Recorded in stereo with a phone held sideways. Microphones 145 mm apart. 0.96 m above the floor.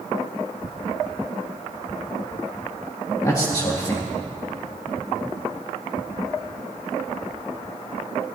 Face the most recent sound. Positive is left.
turn(degrees=25)  # may be behind; listen again after turning